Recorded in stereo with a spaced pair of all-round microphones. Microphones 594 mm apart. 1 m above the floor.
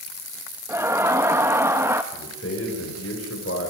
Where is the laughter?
5° right (ahead or behind), 1.0 m.